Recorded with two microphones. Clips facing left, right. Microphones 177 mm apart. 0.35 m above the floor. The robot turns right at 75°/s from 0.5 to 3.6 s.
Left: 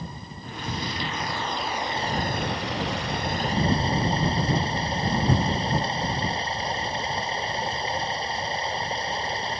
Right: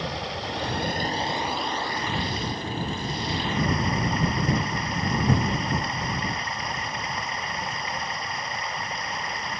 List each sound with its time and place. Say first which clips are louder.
0.0 s running water: right 7 dB; 85° right; by 9.6 s 150° left